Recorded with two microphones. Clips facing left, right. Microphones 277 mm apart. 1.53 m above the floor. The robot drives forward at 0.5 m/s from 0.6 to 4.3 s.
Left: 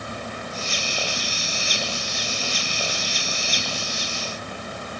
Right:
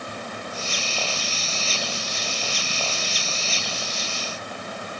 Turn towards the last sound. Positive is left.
No sound to turn to.